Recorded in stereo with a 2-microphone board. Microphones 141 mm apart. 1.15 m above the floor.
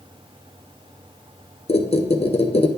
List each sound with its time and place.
1.7 s a squeak: 50° left (ahead or behind), 0.7 m